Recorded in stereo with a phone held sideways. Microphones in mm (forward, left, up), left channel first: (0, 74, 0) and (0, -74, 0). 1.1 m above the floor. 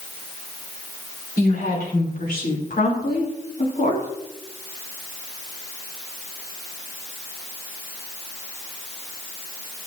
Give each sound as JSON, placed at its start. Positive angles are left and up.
{"t": 1.4, "sound": "a woman speaking", "side_deg": 85, "distance_m": 5.0}